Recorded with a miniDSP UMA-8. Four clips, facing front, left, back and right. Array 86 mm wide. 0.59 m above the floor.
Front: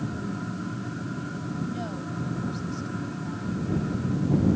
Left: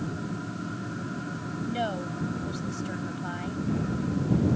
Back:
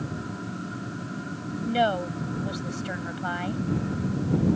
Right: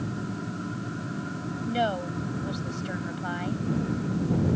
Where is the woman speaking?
160° right.